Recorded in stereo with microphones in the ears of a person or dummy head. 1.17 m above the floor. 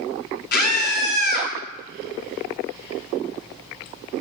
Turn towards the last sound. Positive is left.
turn(degrees=55)  # may be behind; listen again after turning